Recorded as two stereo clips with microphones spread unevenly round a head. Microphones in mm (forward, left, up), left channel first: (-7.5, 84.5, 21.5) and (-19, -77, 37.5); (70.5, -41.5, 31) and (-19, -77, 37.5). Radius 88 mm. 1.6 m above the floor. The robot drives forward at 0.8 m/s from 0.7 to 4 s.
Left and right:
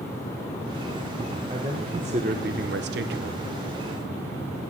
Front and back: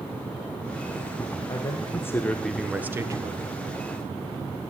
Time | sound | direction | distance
1.5 | a man speaking | 30° right | 1.3 m